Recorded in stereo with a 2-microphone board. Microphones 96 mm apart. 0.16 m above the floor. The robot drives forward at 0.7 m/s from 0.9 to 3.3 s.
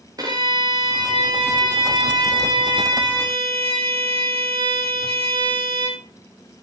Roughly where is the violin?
Right.